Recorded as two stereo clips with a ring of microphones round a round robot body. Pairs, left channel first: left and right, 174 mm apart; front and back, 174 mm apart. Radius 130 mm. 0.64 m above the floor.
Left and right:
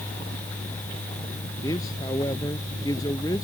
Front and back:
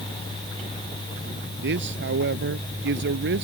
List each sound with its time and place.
1.6 s a man speaking: 165° left